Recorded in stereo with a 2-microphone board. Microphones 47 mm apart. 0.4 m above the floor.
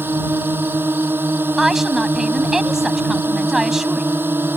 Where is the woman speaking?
10° right (ahead or behind).